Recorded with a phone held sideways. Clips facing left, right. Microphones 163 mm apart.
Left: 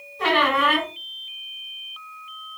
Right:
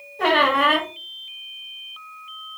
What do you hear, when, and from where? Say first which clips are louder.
0.2 s a squeak: right 2 dB; 55° right (ahead or behind), 1.1 m